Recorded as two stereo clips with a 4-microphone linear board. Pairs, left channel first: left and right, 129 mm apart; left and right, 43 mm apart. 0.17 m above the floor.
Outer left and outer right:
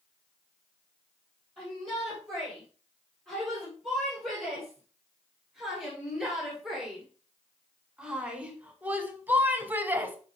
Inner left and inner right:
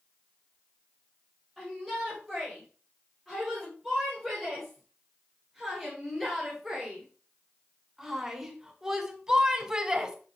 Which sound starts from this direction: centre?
A shout, at 1.6 s.